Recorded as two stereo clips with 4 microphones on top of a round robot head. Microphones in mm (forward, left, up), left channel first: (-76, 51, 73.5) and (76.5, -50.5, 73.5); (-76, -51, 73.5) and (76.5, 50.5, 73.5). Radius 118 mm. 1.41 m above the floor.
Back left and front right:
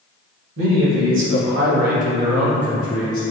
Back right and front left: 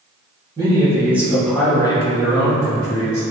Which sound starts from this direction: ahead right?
A man speaking, at 0.6 s.